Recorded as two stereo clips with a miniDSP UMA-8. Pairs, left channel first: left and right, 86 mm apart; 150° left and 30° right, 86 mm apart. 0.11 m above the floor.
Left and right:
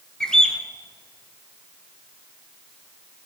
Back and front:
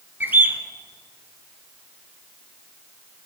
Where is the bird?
15° left, 0.8 m.